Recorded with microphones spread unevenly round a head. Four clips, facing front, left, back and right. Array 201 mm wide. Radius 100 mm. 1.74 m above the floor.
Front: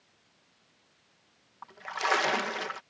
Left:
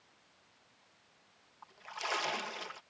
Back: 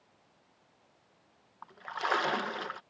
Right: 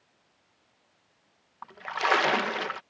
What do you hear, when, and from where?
1.6 s a splash: 80° right